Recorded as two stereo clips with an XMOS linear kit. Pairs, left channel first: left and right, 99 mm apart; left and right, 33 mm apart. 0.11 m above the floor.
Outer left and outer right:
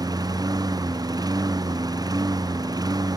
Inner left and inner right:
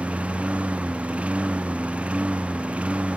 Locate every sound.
0.0 s a lawn mower: 45° right (ahead or behind)